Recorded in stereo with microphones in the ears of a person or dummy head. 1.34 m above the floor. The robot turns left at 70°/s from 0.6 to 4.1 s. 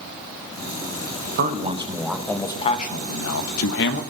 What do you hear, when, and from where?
1.4 s a man speaking: 125° right, 1.1 m; by 4.0 s 55° left, 1.1 m